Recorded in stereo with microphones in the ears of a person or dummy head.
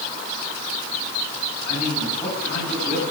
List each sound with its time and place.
1.6 s a man speaking: 40° left (ahead or behind), 9 m